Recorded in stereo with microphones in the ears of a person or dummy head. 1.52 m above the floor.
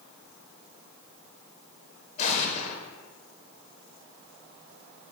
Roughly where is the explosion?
Left.